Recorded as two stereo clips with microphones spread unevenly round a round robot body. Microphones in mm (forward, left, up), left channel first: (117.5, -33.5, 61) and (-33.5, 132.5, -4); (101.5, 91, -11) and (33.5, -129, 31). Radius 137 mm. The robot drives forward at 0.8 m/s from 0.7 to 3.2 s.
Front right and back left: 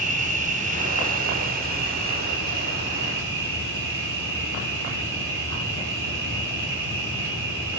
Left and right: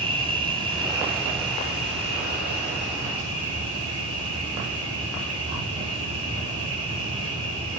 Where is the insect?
175° left, 1.5 m; by 7.8 s straight behind, 3.5 m.